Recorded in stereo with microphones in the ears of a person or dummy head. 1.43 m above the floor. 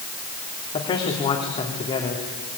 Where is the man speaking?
25° left (ahead or behind), 3 m.